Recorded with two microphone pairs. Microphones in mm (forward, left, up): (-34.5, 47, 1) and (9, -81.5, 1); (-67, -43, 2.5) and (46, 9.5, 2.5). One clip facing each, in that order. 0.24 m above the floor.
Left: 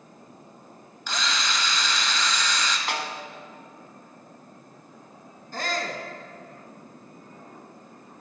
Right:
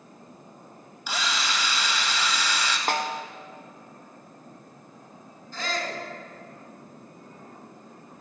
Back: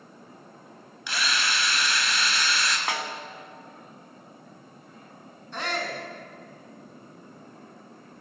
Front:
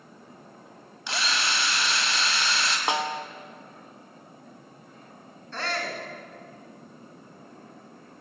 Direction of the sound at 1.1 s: Straight ahead.